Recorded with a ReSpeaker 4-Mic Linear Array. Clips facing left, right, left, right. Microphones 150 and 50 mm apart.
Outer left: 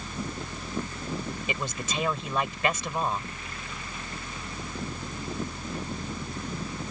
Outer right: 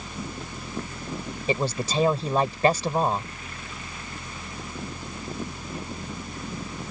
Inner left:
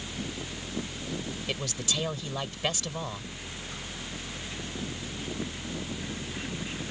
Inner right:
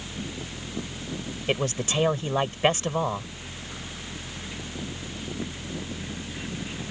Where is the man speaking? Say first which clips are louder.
Outer right 11 dB, inner right 9 dB; 35° right (ahead or behind).